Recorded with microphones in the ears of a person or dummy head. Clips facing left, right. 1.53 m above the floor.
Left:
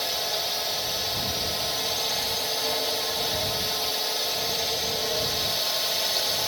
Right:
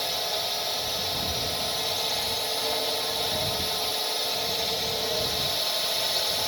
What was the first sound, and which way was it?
A drone, 5° left (ahead or behind).